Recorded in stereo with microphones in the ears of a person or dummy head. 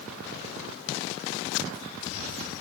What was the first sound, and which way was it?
Only background noise.